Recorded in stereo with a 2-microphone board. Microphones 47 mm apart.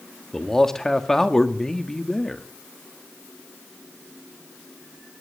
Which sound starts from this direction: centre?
A man speaking, at 0.3 s.